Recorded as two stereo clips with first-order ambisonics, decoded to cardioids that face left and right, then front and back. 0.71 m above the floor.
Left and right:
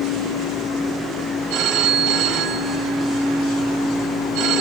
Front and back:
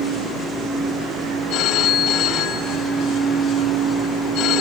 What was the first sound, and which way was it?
A phone ringing, 50° right.